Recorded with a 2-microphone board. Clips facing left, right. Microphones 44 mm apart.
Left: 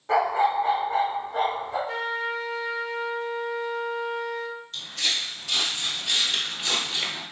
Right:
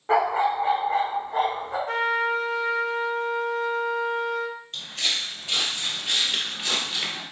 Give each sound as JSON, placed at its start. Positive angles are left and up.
{"t": 0.1, "sound": "a dog barking", "side_deg": -25, "distance_m": 1.0}
{"t": 1.9, "sound": "a trumpet", "side_deg": -55, "distance_m": 0.5}
{"t": 4.7, "sound": "footsteps", "side_deg": -40, "distance_m": 1.9}